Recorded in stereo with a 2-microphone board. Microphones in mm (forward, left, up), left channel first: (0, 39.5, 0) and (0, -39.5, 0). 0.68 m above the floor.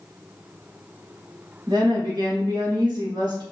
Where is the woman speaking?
70° right (ahead or behind), 1.4 m.